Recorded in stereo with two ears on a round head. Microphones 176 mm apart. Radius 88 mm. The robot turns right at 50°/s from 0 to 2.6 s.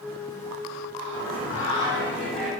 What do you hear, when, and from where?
1.1 s singing: 115° left, 1.8 m; by 2.5 s 175° right, 1.8 m